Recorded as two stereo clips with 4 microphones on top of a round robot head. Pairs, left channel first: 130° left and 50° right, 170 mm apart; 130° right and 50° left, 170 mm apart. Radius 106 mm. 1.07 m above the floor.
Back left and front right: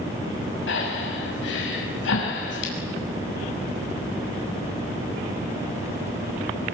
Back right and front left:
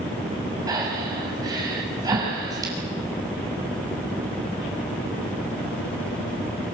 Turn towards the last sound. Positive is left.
turn(degrees=120)